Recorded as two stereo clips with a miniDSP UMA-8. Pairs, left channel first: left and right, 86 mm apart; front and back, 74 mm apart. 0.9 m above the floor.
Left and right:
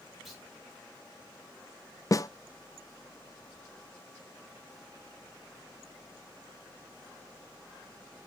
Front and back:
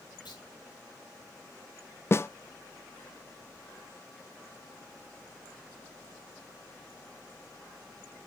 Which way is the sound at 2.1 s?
50° left.